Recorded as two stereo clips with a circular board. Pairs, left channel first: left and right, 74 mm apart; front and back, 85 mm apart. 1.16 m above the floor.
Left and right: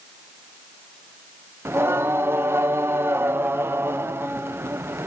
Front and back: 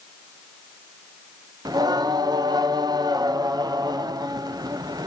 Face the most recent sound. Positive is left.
turn(degrees=-145)